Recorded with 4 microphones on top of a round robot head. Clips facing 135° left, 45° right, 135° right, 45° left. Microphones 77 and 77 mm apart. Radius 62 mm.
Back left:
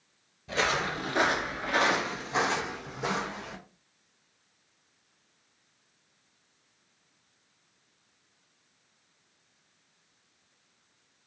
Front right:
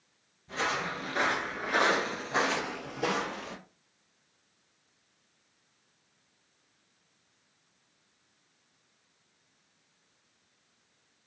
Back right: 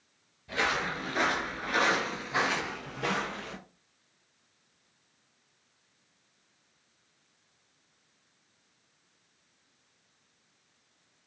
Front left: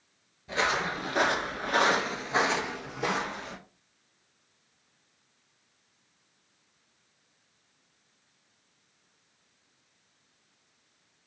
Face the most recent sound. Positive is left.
turn(degrees=-25)